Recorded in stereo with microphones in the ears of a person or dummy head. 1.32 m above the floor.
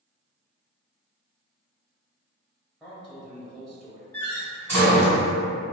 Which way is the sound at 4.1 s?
10° left (ahead or behind).